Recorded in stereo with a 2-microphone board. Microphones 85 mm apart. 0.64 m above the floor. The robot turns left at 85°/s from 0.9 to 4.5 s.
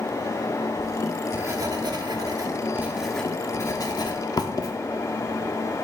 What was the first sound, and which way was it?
Writing, 5° left (ahead or behind).